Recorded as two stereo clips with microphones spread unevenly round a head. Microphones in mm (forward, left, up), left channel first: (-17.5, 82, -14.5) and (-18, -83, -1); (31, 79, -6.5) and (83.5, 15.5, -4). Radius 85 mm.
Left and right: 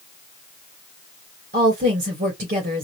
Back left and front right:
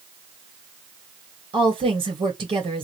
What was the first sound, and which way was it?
A woman speaking, 40° right.